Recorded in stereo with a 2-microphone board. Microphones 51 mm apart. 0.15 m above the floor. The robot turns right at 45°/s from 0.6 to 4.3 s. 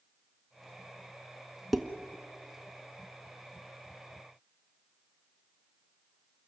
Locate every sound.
1.7 s dishes clattering: centre (ahead or behind), 1.1 m; by 1.9 s 5° left (ahead or behind), 1.1 m